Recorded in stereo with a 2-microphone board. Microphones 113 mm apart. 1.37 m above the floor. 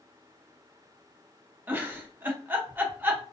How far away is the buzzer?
I don't hear a buzzer.